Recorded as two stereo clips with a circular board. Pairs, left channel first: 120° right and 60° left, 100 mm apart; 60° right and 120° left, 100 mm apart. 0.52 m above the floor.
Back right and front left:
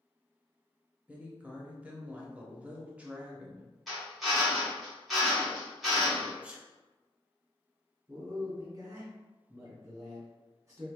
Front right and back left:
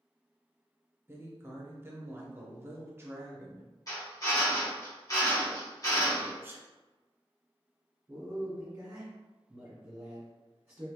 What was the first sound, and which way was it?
A woman speaking, 120° left.